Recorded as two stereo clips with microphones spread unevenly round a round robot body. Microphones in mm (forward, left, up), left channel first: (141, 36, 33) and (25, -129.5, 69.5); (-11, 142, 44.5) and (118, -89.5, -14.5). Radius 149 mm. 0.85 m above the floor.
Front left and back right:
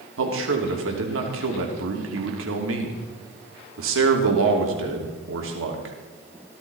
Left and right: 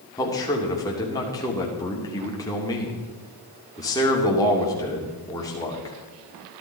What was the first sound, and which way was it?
A man speaking, 160° right.